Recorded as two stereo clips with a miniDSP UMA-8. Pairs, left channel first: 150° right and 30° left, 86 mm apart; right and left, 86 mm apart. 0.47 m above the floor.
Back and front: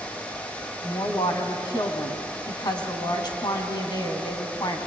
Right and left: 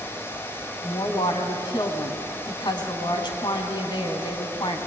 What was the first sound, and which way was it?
A woman speaking, 115° right.